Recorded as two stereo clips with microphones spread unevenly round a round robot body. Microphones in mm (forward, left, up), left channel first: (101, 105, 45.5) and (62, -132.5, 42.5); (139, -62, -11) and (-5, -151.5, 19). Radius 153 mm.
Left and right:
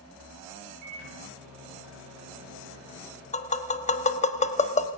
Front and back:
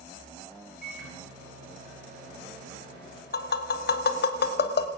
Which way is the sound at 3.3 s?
15° left.